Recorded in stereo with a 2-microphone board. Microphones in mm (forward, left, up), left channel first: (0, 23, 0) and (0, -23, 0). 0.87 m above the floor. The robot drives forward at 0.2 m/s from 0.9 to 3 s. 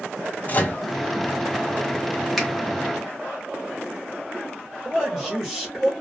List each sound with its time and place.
0.5 s a microwave: 35° left (ahead or behind), 0.6 m
2.4 s a finger snap: 5° left (ahead or behind), 1.0 m
4.8 s a man speaking: 5° left (ahead or behind), 1.1 m